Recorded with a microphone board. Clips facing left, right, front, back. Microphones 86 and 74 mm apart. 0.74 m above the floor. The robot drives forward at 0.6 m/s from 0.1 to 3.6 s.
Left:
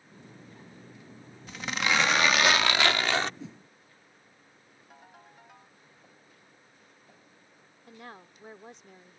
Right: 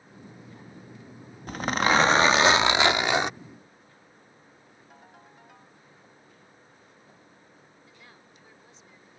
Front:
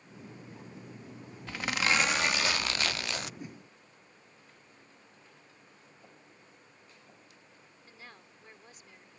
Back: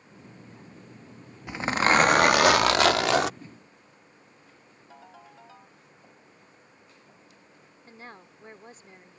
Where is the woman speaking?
125° left.